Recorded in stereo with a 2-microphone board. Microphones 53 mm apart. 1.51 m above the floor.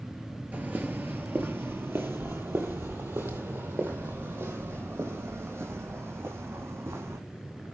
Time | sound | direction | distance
0.5 | footsteps | 30° right (ahead or behind) | 1.7 m